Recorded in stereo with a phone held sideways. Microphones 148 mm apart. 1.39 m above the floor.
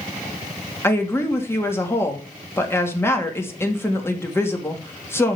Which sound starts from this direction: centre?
A woman speaking, at 0.8 s.